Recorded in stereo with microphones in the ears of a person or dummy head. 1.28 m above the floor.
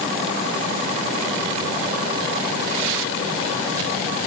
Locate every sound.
Only background noise.